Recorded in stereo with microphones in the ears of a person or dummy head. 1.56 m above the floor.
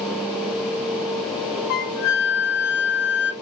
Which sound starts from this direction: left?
A flute, at 1.7 s.